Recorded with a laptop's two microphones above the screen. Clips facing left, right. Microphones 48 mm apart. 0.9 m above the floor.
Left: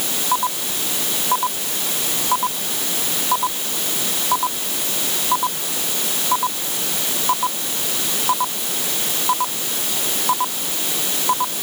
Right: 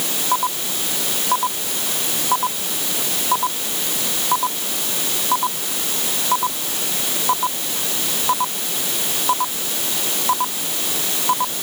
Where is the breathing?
I don't hear breathing.